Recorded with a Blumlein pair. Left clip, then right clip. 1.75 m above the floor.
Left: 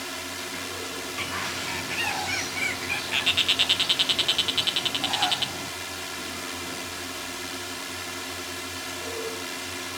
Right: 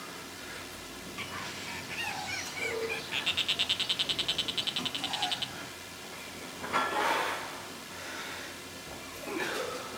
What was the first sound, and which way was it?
A drone, 60° left.